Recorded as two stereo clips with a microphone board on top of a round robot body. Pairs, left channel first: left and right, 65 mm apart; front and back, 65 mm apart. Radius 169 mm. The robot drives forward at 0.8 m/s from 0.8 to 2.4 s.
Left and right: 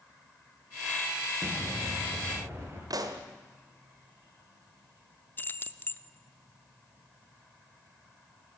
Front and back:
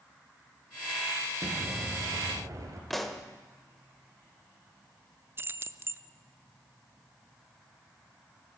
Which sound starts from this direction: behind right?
An explosion, at 1.4 s.